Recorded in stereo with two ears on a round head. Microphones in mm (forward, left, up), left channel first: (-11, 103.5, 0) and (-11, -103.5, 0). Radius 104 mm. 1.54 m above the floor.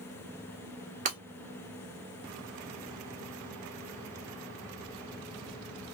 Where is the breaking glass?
35° right (ahead or behind), 1.2 m.